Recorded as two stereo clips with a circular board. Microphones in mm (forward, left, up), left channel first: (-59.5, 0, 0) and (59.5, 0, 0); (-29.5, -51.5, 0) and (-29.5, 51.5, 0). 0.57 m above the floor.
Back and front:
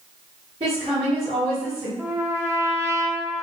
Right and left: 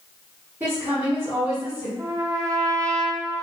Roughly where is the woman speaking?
Ahead.